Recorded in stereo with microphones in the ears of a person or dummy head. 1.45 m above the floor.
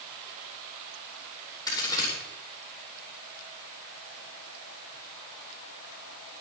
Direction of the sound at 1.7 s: 20° left (ahead or behind).